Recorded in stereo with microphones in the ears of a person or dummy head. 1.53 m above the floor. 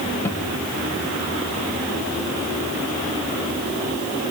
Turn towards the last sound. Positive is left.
turn(degrees=15)  # may be behind; listen again after turning